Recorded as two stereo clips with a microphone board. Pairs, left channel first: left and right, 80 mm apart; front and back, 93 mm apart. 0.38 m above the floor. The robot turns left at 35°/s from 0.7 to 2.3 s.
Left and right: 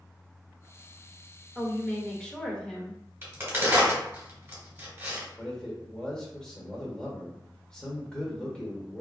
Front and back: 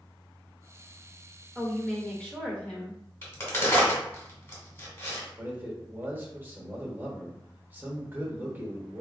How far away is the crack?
About 1.8 m.